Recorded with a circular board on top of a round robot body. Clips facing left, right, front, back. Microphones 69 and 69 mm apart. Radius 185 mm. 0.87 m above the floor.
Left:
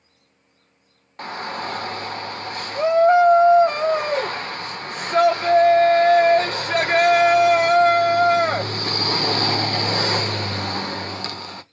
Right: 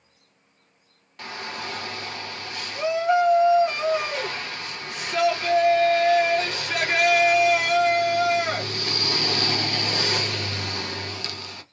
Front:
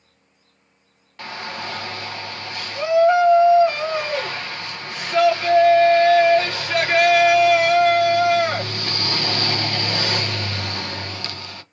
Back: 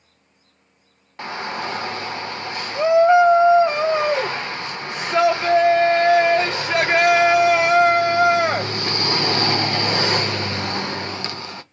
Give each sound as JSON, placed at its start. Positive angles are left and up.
{"t": 1.2, "sound": "a shout", "azimuth_deg": 120, "distance_m": 1.0}